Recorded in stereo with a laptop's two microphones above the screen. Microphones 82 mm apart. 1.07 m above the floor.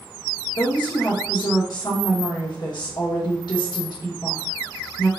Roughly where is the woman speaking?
Left.